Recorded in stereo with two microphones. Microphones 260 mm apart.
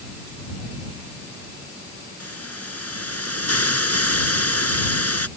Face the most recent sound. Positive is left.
turn(degrees=65)  # may be behind; listen again after turning